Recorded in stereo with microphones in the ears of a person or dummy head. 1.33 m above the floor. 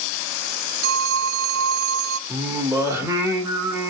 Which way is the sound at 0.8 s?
60° right (ahead or behind).